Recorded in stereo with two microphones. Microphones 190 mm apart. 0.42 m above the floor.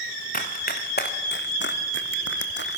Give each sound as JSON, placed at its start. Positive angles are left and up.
{"t": 0.3, "sound": "running footsteps", "side_deg": 45, "distance_m": 3.0}